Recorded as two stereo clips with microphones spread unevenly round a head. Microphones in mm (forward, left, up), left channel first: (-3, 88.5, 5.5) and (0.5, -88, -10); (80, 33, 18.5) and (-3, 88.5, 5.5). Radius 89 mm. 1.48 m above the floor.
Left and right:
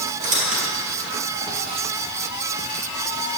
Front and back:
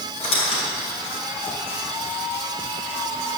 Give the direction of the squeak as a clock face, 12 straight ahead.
1 o'clock.